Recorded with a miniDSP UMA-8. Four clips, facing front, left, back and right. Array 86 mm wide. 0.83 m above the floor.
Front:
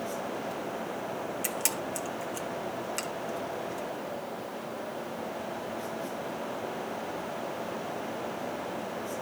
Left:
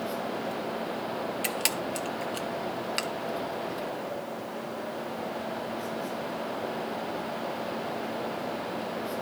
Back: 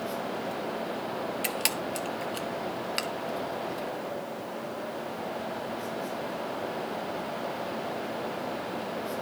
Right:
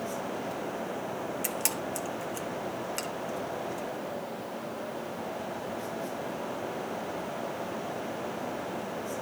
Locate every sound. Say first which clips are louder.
1.4 s a camera shutter: left 2 dB, back 2 dB; 135° left, 0.9 m